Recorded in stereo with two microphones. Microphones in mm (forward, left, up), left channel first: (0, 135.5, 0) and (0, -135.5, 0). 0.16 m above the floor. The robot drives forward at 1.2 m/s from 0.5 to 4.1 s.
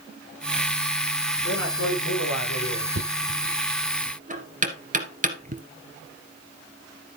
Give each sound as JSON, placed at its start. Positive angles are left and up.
{"t": 1.4, "sound": "a man speaking", "side_deg": 80, "distance_m": 9.5}
{"t": 3.0, "sound": "knocking", "side_deg": -45, "distance_m": 1.5}